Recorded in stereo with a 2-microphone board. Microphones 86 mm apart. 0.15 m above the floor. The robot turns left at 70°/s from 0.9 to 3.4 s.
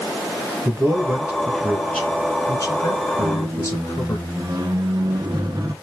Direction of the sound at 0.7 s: 40° right (ahead or behind).